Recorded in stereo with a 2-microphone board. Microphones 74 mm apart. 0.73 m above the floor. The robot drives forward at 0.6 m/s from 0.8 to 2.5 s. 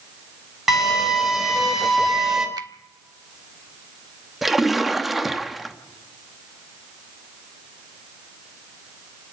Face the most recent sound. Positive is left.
turn(degrees=0)  # may be behind; listen again after turning